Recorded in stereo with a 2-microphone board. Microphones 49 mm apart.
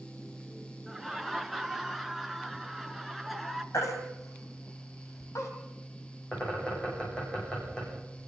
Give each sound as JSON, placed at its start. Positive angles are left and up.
{"t": 0.9, "sound": "laughter", "side_deg": 0, "distance_m": 1.8}
{"t": 3.7, "sound": "a baby crying", "side_deg": 80, "distance_m": 3.5}
{"t": 6.3, "sound": "a bird", "side_deg": 20, "distance_m": 9.5}